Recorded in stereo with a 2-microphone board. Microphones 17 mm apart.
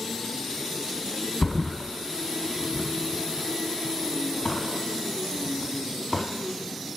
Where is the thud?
35° left (ahead or behind), 0.7 m.